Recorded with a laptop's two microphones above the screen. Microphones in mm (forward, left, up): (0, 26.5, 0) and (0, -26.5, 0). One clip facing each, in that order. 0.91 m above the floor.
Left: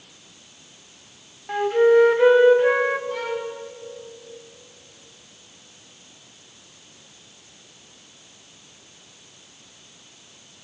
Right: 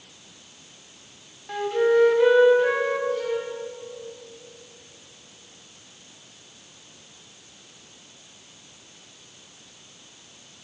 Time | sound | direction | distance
1.5 | a flute | 25° left (ahead or behind) | 3 m
3.1 | a violin | 75° left (ahead or behind) | 3 m